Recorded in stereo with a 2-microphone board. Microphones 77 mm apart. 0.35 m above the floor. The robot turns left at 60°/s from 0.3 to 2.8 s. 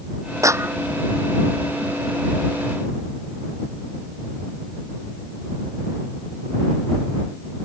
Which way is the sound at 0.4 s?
45° right (ahead or behind).